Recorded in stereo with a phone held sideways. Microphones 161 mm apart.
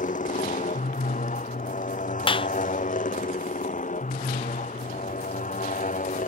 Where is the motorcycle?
50° left (ahead or behind).